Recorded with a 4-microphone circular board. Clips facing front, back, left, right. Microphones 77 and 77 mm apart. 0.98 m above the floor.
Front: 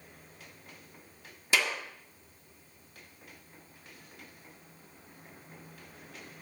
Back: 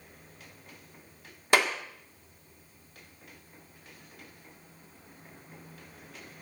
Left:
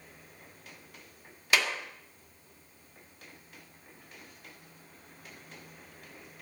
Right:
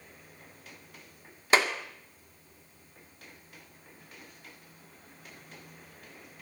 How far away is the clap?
About 1.6 m.